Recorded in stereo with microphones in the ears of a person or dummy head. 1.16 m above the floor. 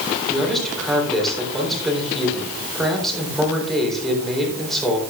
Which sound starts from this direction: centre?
A man speaking, at 0.3 s.